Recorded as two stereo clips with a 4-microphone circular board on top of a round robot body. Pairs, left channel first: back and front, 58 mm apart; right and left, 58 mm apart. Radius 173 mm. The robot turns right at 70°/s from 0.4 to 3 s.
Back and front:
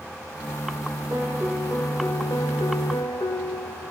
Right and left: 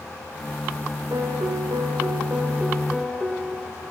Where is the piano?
50° left, 0.5 m; by 3.9 s 175° right, 0.5 m.